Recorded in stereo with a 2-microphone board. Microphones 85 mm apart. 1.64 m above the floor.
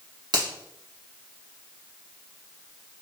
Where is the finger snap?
50° right (ahead or behind), 1.3 m.